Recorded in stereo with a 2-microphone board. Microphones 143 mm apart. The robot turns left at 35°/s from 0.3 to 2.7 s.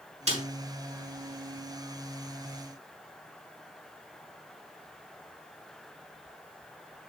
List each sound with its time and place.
0.3 s a snare drum: 45° right (ahead or behind), 5 m; by 0.4 s 50° right (ahead or behind), 5 m